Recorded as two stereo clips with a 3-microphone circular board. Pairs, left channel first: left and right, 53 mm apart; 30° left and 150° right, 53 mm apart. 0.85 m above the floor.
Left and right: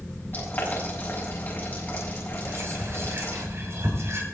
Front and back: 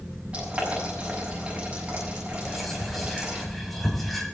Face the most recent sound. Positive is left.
turn(degrees=-60)